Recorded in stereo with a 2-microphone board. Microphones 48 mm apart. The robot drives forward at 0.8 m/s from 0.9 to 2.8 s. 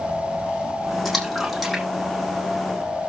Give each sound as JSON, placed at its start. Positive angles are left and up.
{"t": 1.1, "sound": "a splash", "side_deg": 0, "distance_m": 6.5}